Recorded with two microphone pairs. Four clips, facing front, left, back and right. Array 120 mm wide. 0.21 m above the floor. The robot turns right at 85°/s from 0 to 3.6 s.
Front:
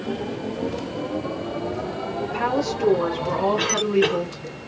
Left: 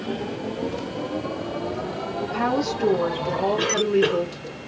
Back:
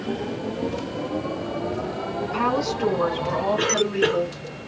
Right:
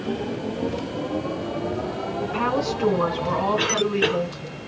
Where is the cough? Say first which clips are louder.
Left 2 dB, front 1 dB; 45° right, 1.6 m; by 4.2 s 40° right, 1.6 m.